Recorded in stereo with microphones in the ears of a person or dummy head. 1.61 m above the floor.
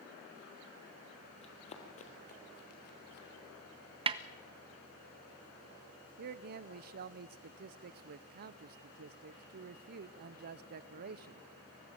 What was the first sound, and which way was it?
Running footsteps, 30° left (ahead or behind).